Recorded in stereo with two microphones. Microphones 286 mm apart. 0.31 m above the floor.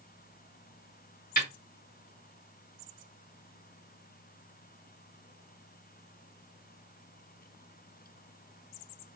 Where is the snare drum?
30° left (ahead or behind), 2.5 m.